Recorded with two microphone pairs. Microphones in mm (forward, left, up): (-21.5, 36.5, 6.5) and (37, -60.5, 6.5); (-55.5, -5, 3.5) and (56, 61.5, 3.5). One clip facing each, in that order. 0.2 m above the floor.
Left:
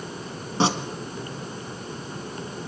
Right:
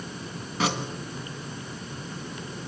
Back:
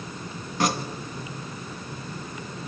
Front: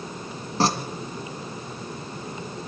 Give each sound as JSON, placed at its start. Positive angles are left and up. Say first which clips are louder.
{"t": 0.6, "sound": "tearing paper", "louder": "left 5 dB, front 2 dB", "azimuth_deg": 75, "distance_m": 1.9}